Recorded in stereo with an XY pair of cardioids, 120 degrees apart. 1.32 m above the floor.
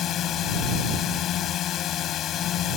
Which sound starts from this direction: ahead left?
A drone, at 0.0 s.